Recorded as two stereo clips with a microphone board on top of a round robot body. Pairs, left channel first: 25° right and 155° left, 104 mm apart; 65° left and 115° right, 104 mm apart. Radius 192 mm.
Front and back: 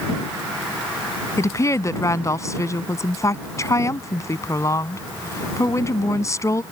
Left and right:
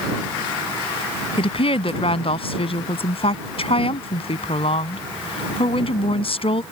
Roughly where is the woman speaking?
Ahead left.